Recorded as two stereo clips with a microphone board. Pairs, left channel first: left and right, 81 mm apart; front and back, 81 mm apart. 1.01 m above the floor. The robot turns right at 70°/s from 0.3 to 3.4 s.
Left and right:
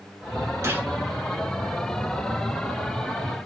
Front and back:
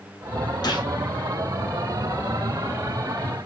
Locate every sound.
0.6 s a gunshot: 35° right, 1.0 m; by 0.9 s 15° right, 1.0 m